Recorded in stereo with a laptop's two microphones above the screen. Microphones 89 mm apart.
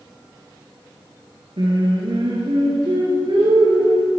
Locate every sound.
1.6 s singing: 70° right (ahead or behind), 4 m